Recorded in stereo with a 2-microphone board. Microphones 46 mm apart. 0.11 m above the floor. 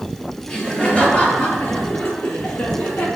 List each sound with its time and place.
0.5 s laughter: 20° left (ahead or behind), 2.5 m; by 3.1 s 55° left (ahead or behind), 3.5 m